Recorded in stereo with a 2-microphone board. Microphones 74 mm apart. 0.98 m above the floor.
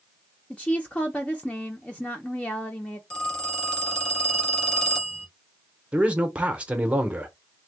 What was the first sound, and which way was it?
A woman speaking, 15° left (ahead or behind).